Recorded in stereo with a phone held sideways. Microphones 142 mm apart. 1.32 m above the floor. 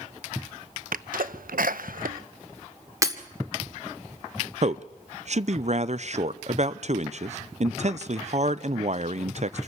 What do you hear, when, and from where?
0.9 s a sneeze: 85° right, 0.8 m
3.0 s breaking glass: 25° right (ahead or behind), 1.5 m
4.6 s a man speaking: 55° right (ahead or behind), 0.6 m